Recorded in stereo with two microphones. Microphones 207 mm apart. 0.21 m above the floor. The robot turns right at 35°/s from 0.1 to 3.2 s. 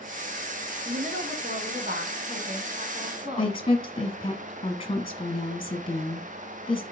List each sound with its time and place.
0.8 s a woman speaking: 125° right, 1.9 m; by 3.6 s 45° right, 1.9 m
3.4 s a woman speaking: 25° left (ahead or behind), 1.5 m